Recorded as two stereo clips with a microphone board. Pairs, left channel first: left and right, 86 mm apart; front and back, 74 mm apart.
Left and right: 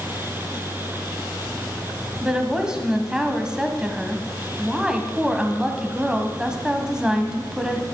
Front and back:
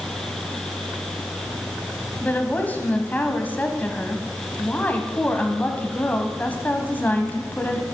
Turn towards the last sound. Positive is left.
turn(degrees=-20)